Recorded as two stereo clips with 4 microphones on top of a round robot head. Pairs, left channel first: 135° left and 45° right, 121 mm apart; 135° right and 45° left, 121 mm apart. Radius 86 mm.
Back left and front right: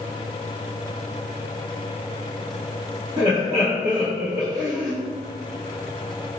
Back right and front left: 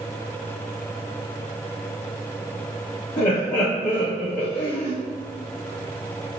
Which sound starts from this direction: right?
Laughter, at 3.2 s.